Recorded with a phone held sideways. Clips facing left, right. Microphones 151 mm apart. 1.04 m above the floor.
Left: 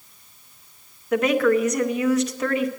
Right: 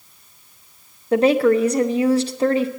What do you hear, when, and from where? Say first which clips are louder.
1.1 s a woman speaking: right 4 dB; 30° right (ahead or behind), 0.6 m